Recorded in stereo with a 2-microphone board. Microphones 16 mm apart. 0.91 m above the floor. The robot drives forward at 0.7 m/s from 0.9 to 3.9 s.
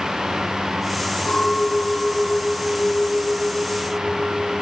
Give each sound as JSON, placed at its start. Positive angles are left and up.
{"t": 1.3, "sound": "a clink", "side_deg": 85, "distance_m": 7.5}